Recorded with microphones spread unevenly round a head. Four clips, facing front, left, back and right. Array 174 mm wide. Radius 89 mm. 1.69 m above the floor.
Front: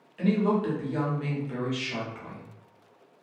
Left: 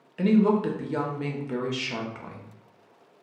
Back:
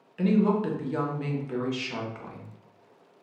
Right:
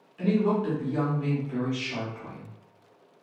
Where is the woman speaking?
100° left, 0.7 m.